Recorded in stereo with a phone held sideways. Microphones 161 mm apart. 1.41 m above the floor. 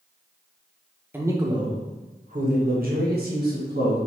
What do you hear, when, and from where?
1.1 s a man speaking: 15° right (ahead or behind), 0.8 m; by 4.0 s 80° right, 1.5 m